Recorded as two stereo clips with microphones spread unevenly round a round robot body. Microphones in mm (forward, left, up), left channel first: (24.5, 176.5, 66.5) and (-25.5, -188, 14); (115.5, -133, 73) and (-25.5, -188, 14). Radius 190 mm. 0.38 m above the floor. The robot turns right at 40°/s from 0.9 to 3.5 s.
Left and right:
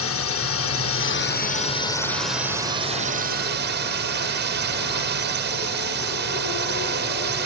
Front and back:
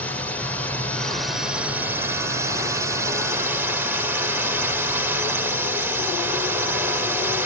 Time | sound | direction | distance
0.0 | a drone | 130° left | ?